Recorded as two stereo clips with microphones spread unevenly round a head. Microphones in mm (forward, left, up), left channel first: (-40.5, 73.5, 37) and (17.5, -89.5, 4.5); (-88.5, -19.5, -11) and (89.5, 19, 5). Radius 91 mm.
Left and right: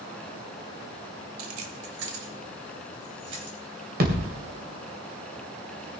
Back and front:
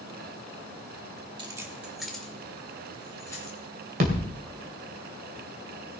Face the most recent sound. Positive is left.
turn(degrees=-30)